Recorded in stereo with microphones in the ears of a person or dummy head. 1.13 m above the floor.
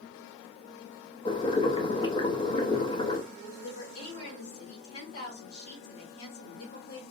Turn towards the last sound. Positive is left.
turn(degrees=65)  # may be behind; listen again after turning